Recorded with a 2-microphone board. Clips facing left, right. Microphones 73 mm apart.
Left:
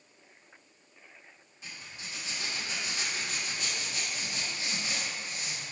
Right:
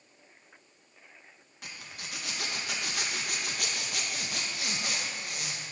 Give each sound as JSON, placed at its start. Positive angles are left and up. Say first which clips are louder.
{"t": 1.6, "sound": "a zipper", "louder": "right 1 dB", "side_deg": -70, "distance_m": 0.5}